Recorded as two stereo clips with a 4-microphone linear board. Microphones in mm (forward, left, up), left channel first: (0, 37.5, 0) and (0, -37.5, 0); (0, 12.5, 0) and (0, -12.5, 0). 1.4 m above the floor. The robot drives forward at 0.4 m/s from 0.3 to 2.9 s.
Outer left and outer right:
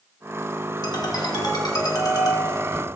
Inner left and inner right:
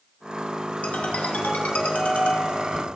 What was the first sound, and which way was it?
A ringtone, 70° left (ahead or behind).